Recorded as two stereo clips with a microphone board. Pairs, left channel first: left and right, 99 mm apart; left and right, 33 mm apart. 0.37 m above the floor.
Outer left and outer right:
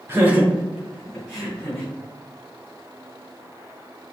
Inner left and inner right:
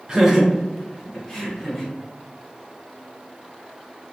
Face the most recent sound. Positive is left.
turn(degrees=10)  # may be behind; listen again after turning